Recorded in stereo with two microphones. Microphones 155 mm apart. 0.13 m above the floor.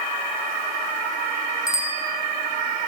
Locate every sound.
1.7 s a bicycle bell: 80° right, 6 m